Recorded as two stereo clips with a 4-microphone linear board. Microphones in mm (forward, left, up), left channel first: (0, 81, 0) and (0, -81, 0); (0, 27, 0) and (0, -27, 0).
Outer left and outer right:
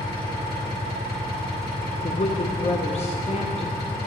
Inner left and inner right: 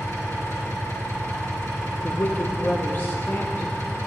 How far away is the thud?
No thud in this recording.